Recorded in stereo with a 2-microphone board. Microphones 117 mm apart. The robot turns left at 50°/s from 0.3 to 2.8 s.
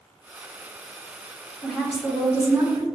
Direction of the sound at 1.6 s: 20° left.